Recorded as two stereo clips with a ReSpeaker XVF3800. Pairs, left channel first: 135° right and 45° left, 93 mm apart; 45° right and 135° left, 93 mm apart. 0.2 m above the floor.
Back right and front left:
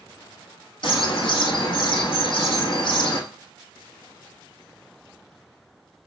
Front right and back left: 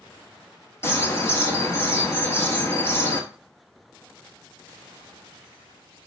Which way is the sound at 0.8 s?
110° right.